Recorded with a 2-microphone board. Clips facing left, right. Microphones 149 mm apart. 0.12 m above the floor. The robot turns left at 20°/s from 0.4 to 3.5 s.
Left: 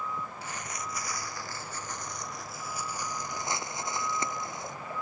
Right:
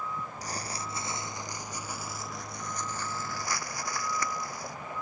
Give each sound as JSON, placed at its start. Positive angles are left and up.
{"t": 0.4, "sound": "crumpling", "azimuth_deg": -140}